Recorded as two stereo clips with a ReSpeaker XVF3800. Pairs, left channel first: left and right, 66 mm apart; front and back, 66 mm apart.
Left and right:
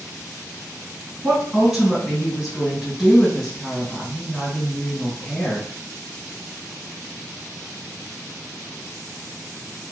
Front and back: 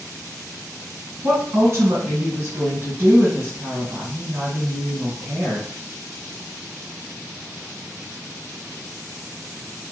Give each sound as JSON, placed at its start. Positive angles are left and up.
{"t": 1.2, "sound": "a woman speaking", "azimuth_deg": -165, "distance_m": 1.9}